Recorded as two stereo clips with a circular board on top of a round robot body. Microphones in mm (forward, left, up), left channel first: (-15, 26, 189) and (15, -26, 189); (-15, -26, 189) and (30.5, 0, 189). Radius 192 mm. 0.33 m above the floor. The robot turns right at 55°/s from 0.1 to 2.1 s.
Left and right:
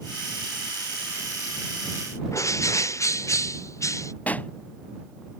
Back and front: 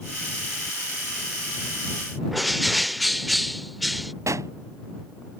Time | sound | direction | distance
2.3 | a bird | 120° left | ?
4.3 | a pop | 50° left | ?